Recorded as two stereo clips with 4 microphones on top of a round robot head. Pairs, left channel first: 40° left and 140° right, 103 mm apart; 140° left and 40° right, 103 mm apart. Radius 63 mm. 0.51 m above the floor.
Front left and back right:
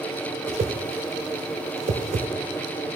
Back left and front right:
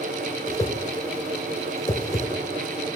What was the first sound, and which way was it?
A whoosh, 160° right.